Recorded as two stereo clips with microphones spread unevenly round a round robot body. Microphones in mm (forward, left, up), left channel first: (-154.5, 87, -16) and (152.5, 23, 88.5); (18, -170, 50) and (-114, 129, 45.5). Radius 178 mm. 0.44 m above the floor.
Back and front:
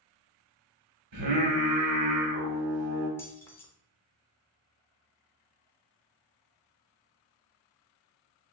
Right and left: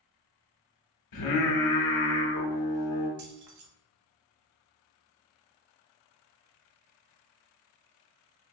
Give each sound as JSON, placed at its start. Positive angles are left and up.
{"t": 1.1, "sound": "singing", "azimuth_deg": -45, "distance_m": 1.0}
{"t": 3.2, "sound": "keys jangling", "azimuth_deg": 100, "distance_m": 0.9}